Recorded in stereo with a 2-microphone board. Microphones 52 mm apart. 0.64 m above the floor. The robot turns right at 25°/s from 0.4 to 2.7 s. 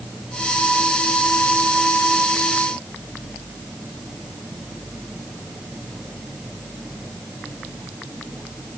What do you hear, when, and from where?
Only background noise.